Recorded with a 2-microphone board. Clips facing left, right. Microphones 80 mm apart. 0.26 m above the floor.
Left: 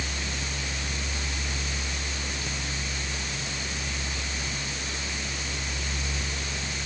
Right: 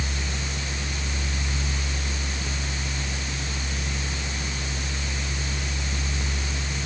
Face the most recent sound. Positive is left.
No sound to turn to.